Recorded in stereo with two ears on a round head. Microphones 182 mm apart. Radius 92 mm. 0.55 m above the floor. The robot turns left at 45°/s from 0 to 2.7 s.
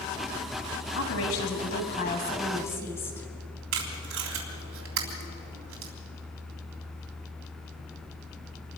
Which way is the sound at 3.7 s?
75° right (ahead or behind).